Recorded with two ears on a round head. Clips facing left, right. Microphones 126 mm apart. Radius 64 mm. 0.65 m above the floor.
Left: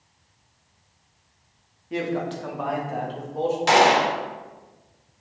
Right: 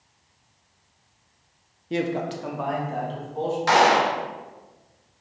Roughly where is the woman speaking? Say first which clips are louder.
Right 1 dB; right.